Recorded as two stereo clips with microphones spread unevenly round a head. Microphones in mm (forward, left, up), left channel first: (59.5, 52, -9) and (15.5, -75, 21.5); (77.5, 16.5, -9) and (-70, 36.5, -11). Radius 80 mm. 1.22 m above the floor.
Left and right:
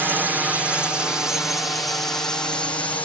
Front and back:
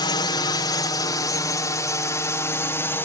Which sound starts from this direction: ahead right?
A drone, at 0.0 s.